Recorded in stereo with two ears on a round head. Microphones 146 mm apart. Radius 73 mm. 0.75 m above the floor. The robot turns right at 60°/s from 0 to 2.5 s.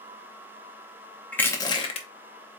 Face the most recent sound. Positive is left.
turn(degrees=80)